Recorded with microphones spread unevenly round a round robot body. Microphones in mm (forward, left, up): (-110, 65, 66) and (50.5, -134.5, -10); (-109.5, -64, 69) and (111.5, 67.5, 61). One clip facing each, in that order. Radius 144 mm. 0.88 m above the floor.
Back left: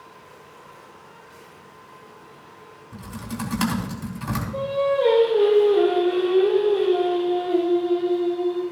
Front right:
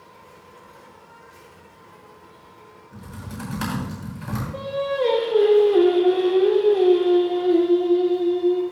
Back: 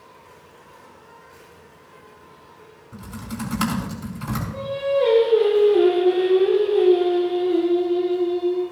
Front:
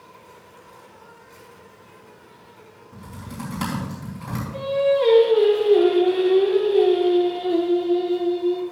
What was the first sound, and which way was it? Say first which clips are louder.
An insect: back left 1 dB, front 1 dB; 55° left.